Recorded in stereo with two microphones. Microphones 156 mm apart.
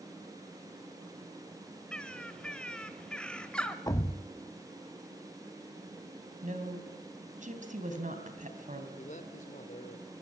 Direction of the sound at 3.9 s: 20° left (ahead or behind).